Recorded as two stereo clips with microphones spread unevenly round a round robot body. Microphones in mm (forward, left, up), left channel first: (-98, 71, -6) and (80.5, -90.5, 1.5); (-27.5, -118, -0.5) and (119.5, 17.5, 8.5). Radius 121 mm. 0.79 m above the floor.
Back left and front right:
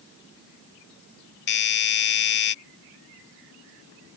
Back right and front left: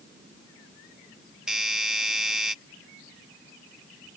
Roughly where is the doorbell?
Behind left.